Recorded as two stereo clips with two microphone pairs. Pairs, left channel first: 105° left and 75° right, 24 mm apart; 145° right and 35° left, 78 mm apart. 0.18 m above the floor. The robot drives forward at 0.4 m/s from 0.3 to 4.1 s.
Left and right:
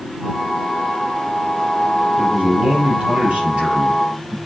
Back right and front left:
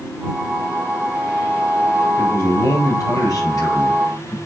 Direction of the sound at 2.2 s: 100° right.